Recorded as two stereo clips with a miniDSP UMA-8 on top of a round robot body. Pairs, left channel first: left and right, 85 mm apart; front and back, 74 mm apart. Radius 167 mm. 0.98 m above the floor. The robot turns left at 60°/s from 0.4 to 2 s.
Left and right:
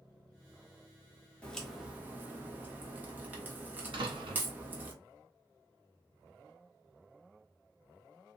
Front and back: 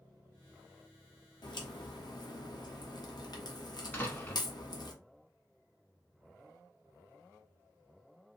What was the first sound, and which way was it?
A crack, 15° left.